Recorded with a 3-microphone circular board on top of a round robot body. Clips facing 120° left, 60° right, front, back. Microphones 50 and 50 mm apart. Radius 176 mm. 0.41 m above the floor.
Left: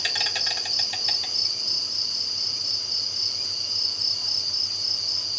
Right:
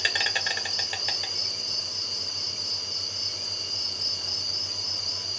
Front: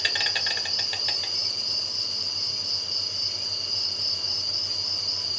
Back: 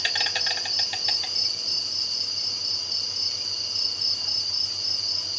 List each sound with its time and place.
0.0 s an insect: 90° right, 2.0 m